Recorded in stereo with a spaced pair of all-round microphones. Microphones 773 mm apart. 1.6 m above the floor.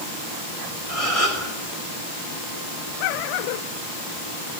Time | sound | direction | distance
0.9 | a gasp | 45° left (ahead or behind) | 5.5 m